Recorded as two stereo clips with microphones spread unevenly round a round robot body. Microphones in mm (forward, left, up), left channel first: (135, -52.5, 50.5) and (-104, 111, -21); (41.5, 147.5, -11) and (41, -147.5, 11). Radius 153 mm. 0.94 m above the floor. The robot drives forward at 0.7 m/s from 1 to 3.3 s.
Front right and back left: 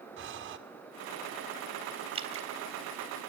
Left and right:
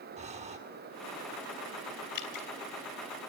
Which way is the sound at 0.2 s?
160° right.